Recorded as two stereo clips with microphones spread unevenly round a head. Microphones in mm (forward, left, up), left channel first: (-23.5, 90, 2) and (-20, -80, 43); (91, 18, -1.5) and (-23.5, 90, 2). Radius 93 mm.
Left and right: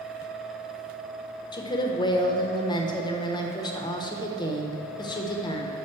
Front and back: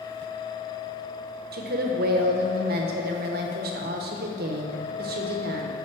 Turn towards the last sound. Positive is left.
turn(degrees=155)